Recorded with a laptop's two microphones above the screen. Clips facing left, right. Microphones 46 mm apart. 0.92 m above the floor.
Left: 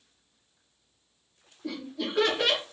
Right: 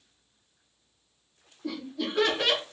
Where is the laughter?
Centre (ahead or behind), 1.3 m.